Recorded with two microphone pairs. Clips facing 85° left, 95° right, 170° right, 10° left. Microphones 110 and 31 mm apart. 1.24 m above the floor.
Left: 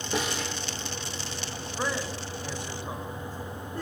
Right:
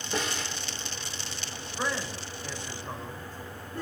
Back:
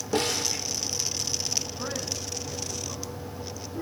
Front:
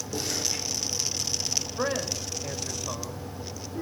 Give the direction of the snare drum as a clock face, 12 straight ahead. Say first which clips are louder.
Left 2 dB, back 5 dB; 7 o'clock.